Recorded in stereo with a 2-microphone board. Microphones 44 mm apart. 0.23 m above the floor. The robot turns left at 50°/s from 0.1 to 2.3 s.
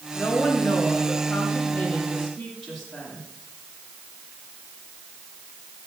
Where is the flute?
No flute in this recording.